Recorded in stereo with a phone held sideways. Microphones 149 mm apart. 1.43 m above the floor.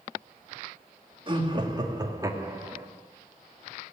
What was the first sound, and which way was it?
Laughter, 35° right (ahead or behind).